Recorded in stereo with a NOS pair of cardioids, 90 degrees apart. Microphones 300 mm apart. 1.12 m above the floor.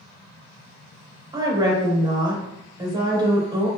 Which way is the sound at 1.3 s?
15° right.